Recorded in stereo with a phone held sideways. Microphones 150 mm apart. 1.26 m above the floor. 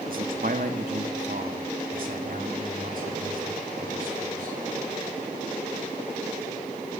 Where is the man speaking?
70° right (ahead or behind), 1.6 m.